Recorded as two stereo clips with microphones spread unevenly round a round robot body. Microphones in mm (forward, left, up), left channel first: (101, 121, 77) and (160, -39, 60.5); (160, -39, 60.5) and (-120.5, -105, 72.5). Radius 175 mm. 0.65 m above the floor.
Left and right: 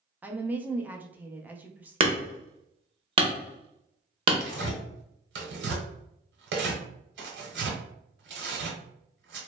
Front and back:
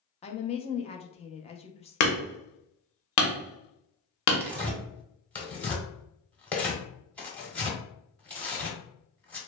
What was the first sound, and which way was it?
A woman speaking, 15° right.